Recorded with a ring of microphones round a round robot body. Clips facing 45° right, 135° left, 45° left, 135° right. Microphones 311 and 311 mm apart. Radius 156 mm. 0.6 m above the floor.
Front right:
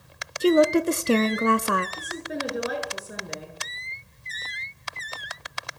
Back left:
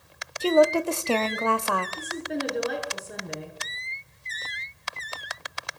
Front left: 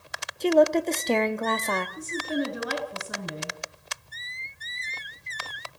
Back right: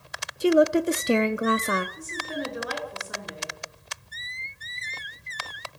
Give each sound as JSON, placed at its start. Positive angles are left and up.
{"t": 0.4, "sound": "a woman speaking", "azimuth_deg": -75, "distance_m": 0.9}
{"t": 2.0, "sound": "a woman speaking", "azimuth_deg": 40, "distance_m": 7.0}